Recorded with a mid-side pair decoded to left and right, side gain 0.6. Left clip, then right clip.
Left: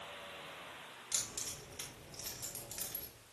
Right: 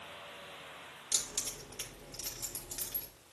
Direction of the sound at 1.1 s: 25° right.